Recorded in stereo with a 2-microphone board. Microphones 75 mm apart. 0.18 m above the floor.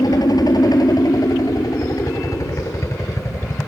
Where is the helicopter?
70° left (ahead or behind); by 3.7 s 40° left (ahead or behind).